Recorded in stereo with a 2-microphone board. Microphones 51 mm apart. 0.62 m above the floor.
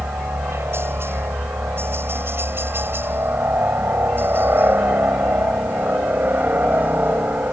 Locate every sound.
0.0 s a helicopter: 55° right (ahead or behind); by 7.5 s 40° right (ahead or behind)